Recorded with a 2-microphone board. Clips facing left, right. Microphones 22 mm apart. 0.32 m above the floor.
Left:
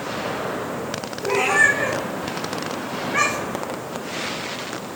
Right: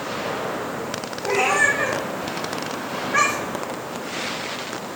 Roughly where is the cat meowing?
Right.